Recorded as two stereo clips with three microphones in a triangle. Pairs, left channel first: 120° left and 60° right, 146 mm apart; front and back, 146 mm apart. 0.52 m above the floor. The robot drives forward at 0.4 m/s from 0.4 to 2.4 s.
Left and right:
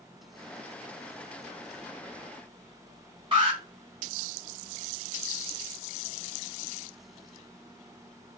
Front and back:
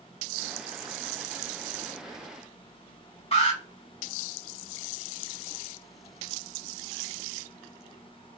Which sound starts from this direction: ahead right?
An alarm, at 3.3 s.